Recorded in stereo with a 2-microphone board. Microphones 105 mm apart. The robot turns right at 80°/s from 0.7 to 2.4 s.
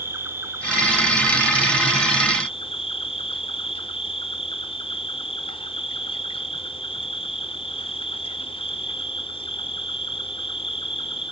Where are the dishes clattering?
No dishes clattering in this recording.